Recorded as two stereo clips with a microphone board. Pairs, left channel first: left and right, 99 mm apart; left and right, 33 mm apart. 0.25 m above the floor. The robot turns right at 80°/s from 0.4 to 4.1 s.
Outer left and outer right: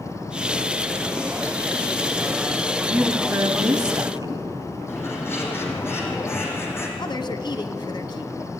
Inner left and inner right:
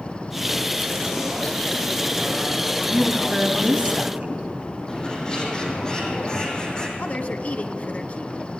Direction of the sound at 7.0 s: 50° left (ahead or behind).